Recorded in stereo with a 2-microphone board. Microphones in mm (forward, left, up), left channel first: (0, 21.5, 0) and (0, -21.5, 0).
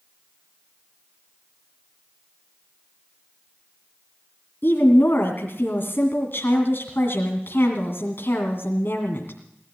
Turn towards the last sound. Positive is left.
turn(degrees=65)  # may be behind; listen again after turning